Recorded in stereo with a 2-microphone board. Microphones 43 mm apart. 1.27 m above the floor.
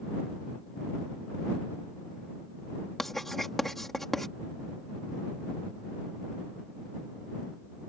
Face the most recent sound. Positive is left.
turn(degrees=5)  # may be behind; listen again after turning